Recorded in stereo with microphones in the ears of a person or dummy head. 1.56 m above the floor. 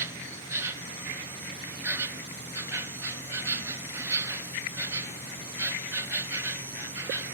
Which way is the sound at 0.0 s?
5° right (ahead or behind).